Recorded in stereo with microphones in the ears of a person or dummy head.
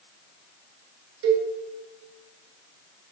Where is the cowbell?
80° right, 0.8 m.